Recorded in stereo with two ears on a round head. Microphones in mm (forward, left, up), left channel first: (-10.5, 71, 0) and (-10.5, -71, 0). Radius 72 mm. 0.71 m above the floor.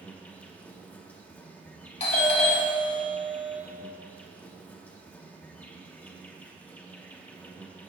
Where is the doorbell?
45° left (ahead or behind), 1.7 m.